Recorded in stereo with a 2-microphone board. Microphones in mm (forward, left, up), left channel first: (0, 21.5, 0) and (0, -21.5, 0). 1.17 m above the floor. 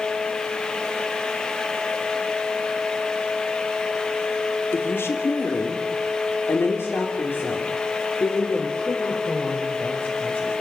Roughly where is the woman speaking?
Left.